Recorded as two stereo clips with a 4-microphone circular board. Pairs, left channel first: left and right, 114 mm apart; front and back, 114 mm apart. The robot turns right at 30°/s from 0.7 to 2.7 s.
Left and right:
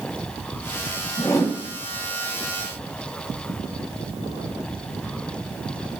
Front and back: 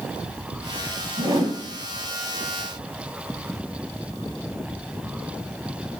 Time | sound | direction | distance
1.2 | a whoosh | 140° left | 1.3 m